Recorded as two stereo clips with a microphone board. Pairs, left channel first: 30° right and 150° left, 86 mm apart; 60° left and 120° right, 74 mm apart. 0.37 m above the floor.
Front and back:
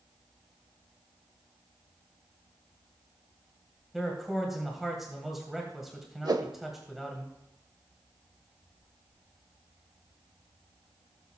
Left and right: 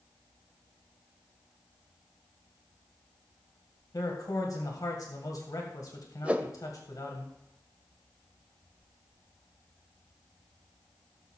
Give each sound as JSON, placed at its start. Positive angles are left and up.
{"t": 3.9, "sound": "a man speaking", "azimuth_deg": 60, "distance_m": 2.0}
{"t": 6.2, "sound": "a whoosh", "azimuth_deg": 170, "distance_m": 0.7}